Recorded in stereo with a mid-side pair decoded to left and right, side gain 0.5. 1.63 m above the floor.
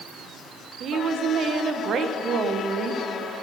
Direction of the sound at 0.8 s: 55° right.